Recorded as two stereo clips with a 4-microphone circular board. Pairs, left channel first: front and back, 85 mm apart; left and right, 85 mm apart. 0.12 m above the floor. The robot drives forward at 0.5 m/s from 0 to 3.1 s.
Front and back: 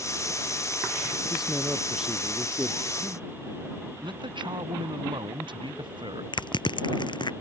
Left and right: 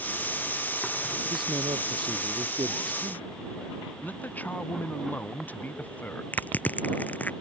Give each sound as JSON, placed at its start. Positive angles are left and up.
{"t": 1.3, "sound": "a man speaking", "azimuth_deg": -95}
{"t": 4.0, "sound": "a man speaking", "azimuth_deg": 160}
{"t": 6.3, "sound": "crushing", "azimuth_deg": 20}